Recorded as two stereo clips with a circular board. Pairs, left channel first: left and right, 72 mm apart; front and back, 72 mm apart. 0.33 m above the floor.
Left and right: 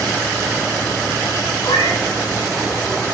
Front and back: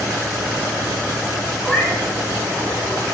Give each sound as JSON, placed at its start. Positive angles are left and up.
{"t": 1.6, "sound": "a cat meowing", "azimuth_deg": 85, "distance_m": 8.0}